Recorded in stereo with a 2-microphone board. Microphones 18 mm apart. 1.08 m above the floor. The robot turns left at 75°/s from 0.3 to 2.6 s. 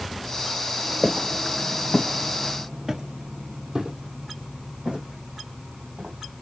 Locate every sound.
1.0 s footsteps: 5° left (ahead or behind), 1.4 m; by 6.2 s 70° right (ahead or behind), 4 m